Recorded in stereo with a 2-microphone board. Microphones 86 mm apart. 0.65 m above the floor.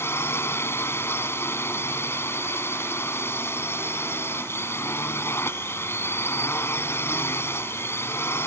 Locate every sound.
0.0 s a drone: 30° left (ahead or behind)